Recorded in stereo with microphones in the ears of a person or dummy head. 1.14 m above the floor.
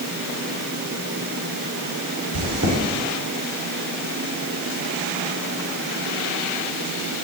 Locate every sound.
2.3 s chewing: 80° right, 4 m